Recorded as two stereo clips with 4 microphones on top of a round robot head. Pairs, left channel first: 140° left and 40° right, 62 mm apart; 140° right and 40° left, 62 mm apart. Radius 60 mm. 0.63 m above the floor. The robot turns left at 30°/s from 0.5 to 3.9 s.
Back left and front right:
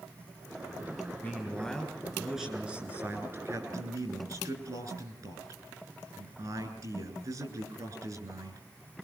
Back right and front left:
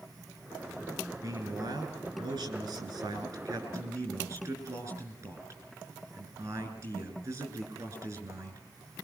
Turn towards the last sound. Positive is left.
turn(degrees=-5)